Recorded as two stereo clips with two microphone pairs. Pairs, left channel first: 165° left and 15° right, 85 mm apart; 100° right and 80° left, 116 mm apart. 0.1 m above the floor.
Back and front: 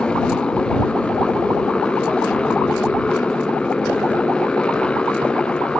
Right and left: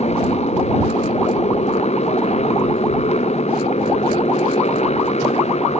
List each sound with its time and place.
0.0 s a motorcycle: 120° right